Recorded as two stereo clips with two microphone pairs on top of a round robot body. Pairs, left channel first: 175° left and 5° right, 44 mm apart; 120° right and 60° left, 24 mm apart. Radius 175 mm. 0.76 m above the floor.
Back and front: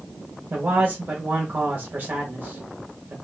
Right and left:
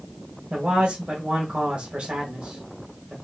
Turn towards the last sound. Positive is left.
turn(degrees=35)